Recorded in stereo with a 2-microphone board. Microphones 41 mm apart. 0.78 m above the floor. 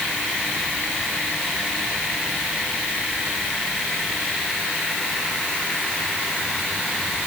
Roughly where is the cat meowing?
I don't hear a cat meowing.